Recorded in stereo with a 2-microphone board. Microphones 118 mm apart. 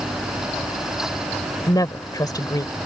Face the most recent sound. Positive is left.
turn(degrees=35)  # may be behind; listen again after turning